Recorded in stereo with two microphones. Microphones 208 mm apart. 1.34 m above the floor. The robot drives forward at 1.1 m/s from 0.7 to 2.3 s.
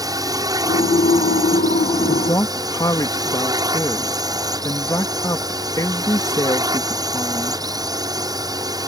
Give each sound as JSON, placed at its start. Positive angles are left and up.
{"t": 0.0, "sound": "a drone", "side_deg": -20}
{"t": 2.1, "sound": "a man speaking", "side_deg": 25}